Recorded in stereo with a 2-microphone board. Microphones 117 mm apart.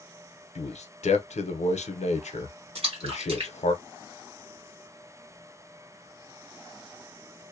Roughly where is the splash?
Right.